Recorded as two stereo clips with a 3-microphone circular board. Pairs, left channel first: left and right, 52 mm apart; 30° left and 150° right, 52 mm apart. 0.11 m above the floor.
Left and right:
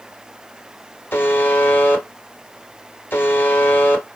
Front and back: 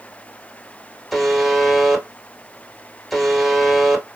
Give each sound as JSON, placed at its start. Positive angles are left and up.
{"t": 1.1, "sound": "a buzzer", "azimuth_deg": 115, "distance_m": 1.3}